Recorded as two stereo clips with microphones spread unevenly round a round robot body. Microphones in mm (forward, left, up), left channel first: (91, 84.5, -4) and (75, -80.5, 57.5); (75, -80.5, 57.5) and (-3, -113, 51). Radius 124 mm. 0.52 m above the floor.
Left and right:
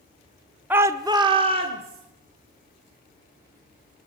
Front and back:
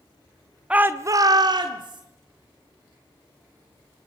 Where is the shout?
155° left, 0.7 m; by 2.0 s 165° right, 1.8 m.